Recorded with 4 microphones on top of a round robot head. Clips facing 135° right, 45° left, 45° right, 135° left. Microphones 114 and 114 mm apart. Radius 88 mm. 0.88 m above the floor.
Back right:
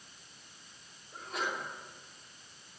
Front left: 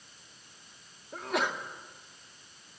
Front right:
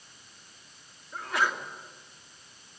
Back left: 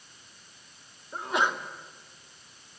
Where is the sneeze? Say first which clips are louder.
Front left 6 dB, back left 2 dB; 65° left, 2.5 m.